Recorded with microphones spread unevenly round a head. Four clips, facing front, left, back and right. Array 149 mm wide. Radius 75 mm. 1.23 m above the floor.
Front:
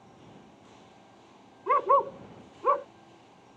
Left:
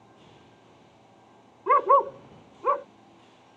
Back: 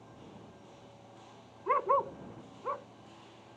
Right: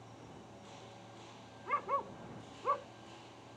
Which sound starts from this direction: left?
A dog barking, at 1.7 s.